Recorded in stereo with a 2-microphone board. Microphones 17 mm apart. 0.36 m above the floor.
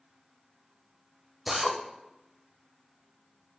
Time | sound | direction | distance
1.5 | a drill | 20° right (ahead or behind) | 0.6 m